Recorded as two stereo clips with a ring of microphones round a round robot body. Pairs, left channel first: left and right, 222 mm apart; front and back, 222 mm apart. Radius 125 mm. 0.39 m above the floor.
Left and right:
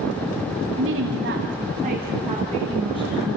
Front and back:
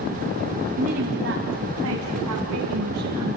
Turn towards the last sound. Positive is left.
turn(degrees=180)